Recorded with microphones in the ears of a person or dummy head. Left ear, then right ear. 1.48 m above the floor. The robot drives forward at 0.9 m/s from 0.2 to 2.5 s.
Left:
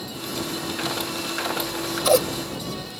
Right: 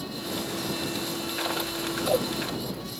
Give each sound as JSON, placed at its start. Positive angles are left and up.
{"t": 1.6, "sound": "scissors", "side_deg": 60}